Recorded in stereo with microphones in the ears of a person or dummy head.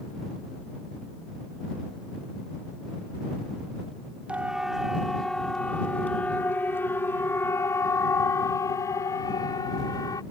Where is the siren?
5° right (ahead or behind); by 10.2 s 20° left (ahead or behind).